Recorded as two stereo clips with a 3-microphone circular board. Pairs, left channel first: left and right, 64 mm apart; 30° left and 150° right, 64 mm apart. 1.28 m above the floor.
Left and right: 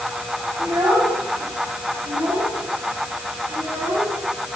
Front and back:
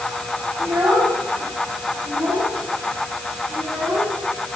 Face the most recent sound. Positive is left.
turn(degrees=-100)